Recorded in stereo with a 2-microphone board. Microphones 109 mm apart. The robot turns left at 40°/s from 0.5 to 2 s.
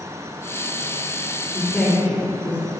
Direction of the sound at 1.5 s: Centre (ahead or behind).